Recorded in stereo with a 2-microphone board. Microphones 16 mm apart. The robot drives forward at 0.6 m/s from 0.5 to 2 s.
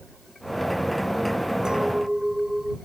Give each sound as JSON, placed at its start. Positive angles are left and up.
{"t": 1.6, "sound": "a clink", "side_deg": -55}